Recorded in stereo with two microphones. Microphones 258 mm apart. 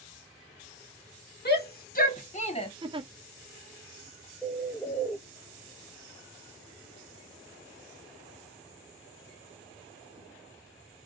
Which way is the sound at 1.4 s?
40° left (ahead or behind).